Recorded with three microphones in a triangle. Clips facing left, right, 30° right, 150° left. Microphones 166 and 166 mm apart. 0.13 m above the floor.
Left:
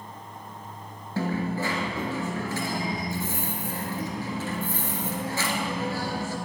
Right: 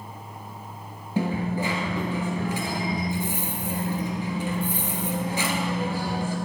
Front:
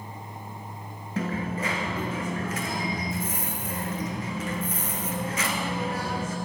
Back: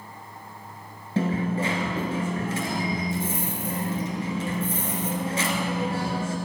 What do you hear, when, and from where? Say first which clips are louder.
1.2 s a dropped coin: right 2 dB, back 5 dB; 160° right, 1.2 m